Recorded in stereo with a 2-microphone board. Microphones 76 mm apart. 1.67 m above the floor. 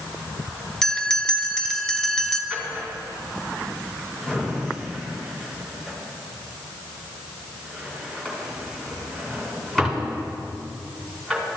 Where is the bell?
5° left (ahead or behind), 0.8 m.